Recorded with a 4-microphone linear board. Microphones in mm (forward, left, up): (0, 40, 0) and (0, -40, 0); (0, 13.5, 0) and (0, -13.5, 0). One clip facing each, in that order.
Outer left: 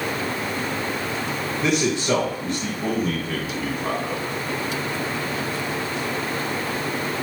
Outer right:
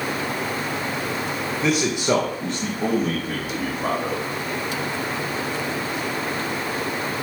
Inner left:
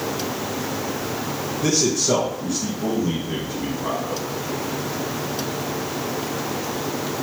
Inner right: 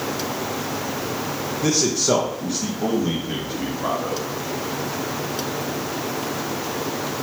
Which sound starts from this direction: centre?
A man speaking, at 1.6 s.